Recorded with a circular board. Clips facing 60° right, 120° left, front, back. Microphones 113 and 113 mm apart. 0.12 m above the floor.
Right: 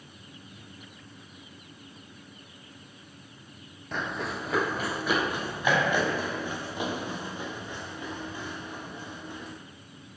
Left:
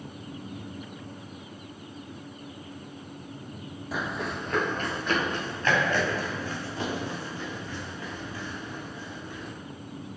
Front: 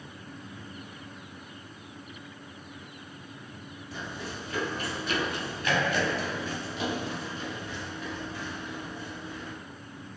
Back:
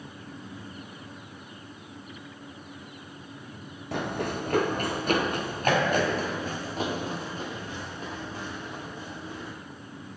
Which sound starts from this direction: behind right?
Running footsteps, at 3.9 s.